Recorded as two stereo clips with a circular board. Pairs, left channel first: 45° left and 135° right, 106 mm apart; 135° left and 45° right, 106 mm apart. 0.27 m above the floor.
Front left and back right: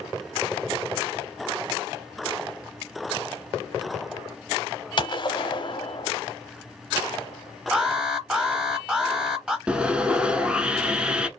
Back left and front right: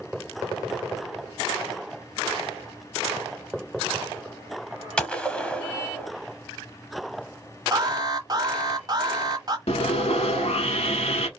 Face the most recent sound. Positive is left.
turn(degrees=145)